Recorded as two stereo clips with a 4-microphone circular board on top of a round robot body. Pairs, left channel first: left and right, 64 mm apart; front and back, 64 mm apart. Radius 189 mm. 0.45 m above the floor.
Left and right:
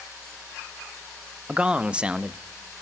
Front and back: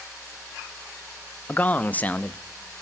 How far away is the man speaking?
About 1.0 m.